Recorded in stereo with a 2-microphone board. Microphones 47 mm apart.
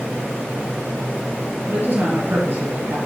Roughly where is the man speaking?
Right.